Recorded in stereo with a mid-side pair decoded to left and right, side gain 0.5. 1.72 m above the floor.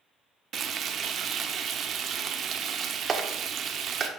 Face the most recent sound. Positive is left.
turn(degrees=-35)